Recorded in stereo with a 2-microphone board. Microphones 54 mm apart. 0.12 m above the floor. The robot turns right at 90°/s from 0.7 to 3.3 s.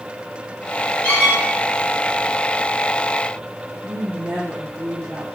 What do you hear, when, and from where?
1.0 s a squeak: 20° left (ahead or behind), 1.3 m; by 1.4 s 45° left (ahead or behind), 1.3 m
3.8 s a woman speaking: 50° right (ahead or behind), 1.9 m